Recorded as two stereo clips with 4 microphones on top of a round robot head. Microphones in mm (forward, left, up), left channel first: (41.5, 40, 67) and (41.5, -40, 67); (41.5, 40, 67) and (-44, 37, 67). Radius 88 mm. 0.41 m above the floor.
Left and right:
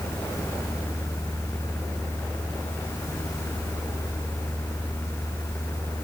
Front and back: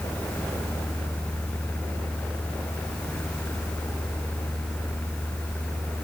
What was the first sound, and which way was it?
Only background noise.